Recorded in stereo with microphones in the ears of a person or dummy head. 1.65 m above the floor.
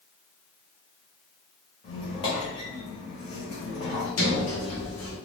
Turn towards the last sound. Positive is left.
turn(degrees=90)